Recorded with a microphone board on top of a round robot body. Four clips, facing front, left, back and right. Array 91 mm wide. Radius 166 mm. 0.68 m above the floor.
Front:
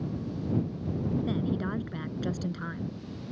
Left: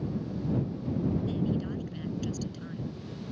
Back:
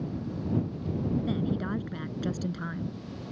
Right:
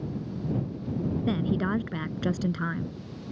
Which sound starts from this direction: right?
A woman speaking, at 1.3 s.